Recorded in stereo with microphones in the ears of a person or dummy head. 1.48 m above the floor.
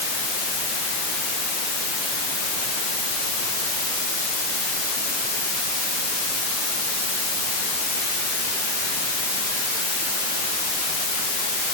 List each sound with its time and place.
Only background noise.